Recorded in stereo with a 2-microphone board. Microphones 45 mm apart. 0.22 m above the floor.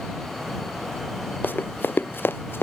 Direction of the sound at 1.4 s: 45° left (ahead or behind).